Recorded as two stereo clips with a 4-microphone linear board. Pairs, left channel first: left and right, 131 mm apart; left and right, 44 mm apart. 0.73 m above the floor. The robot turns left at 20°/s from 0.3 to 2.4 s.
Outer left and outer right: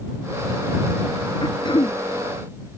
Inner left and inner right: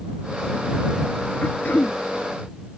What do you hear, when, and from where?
1.4 s throat clearing: 35° left (ahead or behind); by 2.0 s 50° left (ahead or behind)